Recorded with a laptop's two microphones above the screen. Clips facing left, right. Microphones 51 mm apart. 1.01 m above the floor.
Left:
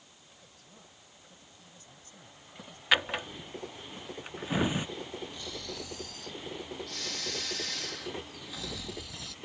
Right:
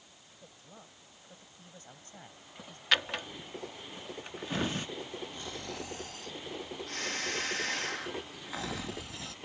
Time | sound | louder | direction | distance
0.4 | a woman speaking | right 5 dB | 25° right (ahead or behind) | ?
2.9 | a drawer | left 2 dB | 15° left (ahead or behind) | ?
5.3 | snoring | even | 40° right (ahead or behind) | ?